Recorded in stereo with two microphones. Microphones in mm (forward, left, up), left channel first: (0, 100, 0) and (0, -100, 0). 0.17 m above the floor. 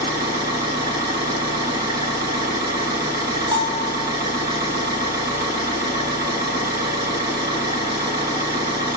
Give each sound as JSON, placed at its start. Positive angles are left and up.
{"t": 0.0, "sound": "an engine running", "side_deg": -55, "distance_m": 3.5}
{"t": 3.5, "sound": "a bell", "side_deg": -25, "distance_m": 1.7}